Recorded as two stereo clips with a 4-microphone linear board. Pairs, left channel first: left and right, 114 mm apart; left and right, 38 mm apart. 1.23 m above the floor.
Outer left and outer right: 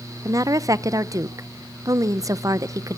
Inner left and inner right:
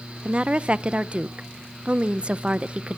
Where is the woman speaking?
30° right (ahead or behind), 0.5 m.